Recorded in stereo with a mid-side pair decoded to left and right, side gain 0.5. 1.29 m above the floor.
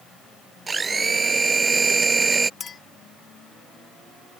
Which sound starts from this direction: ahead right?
A blender, at 0.7 s.